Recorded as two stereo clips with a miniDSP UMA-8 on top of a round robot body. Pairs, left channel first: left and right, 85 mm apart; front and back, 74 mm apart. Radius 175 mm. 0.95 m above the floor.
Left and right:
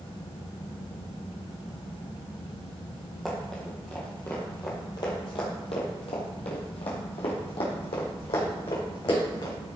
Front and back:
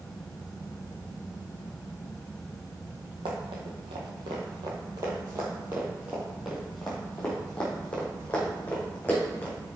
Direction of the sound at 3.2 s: Straight behind.